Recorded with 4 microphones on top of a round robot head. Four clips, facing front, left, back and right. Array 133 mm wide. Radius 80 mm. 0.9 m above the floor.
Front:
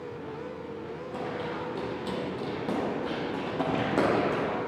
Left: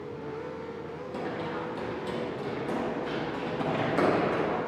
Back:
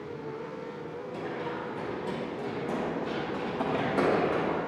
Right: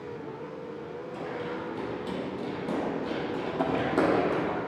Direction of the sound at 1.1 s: 35° left.